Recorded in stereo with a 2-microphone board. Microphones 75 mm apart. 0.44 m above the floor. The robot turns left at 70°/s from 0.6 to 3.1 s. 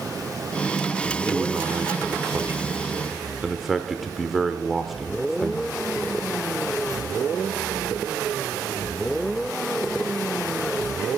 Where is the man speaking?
45° right, 0.9 m; by 5.8 s 175° right, 0.9 m.